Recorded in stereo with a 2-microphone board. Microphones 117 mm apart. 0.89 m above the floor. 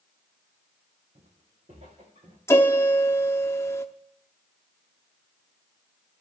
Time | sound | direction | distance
1.1 | footsteps | 75° right (ahead or behind) | 3.5 m
2.5 | a piano | 20° left (ahead or behind) | 0.8 m